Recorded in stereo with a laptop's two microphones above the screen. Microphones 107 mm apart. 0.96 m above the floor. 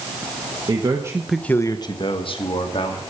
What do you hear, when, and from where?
0.7 s a man speaking: 45° right (ahead or behind), 1.3 m; by 3.0 s 60° left (ahead or behind), 2.5 m